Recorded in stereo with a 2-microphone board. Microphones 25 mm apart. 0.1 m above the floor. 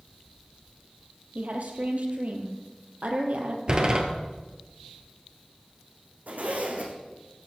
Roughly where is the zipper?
Right.